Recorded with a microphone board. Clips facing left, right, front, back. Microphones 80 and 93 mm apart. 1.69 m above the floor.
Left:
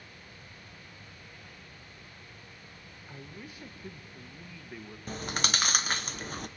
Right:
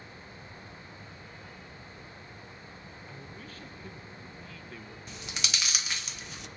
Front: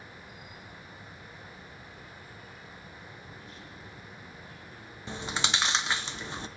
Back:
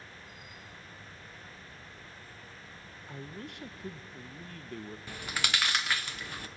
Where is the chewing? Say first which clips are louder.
Left 7 dB, front 4 dB; 60° left, 0.8 m.